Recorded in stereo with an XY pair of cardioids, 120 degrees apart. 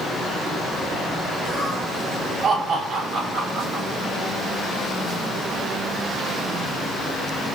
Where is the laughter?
40° right, 9.5 m.